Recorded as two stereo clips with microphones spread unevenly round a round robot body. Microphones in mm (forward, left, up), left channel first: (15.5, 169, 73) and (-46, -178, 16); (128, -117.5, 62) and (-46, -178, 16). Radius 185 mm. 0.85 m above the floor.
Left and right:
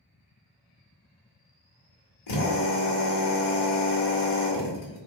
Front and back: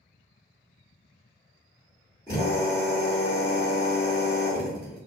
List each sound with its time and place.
2.3 s a drill: 100° left, 2 m